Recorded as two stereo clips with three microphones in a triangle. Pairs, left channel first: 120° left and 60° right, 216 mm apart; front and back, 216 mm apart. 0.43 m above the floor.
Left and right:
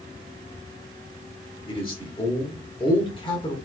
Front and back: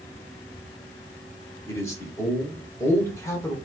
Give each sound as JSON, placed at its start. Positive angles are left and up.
{"t": 1.7, "sound": "a man speaking", "azimuth_deg": 65, "distance_m": 1.2}